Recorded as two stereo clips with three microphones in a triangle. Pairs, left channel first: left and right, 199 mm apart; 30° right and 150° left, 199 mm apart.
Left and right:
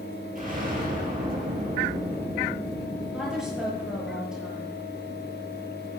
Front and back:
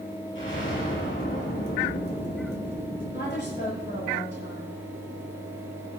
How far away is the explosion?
About 5 m.